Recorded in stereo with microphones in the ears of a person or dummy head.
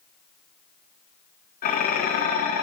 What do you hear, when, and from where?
1.6 s dishes clattering: 45° left (ahead or behind), 1.2 m